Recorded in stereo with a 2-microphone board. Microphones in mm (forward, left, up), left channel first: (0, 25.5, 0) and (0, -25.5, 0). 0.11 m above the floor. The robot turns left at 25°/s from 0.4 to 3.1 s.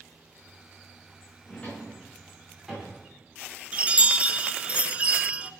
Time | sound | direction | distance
1.5 | a drawer | 25° left (ahead or behind) | 6 m
3.7 | a chime | 25° right (ahead or behind) | 0.5 m